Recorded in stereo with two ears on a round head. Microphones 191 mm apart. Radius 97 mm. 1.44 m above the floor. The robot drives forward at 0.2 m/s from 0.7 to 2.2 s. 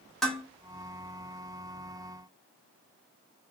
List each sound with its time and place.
0.2 s dishes clattering: centre (ahead or behind), 1.5 m